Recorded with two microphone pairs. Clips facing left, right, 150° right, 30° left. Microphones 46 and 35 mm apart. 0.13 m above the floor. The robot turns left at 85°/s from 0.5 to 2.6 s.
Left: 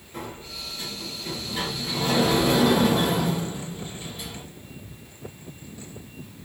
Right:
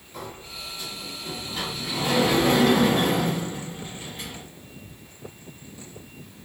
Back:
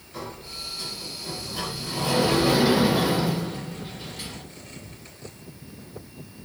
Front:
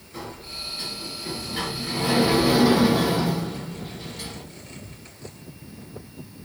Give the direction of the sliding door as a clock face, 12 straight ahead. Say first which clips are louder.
Left 1 dB, front 1 dB; 8 o'clock.